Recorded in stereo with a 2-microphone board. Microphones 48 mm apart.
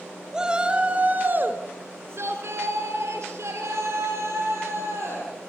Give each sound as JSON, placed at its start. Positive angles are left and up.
{"t": 0.3, "sound": "a shout", "side_deg": -15, "distance_m": 3.0}